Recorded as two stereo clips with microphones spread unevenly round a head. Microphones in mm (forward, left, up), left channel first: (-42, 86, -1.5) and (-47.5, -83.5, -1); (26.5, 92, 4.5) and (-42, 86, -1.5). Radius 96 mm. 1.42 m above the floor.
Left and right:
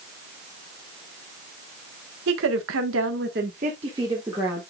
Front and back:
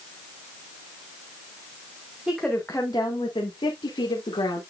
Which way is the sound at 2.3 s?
90° right.